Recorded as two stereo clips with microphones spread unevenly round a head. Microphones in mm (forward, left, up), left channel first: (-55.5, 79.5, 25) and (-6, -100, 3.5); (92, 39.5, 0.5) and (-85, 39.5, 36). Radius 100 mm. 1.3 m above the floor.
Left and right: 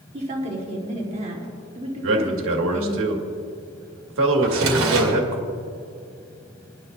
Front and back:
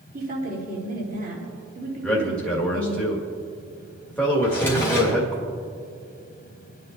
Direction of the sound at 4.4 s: 85° right.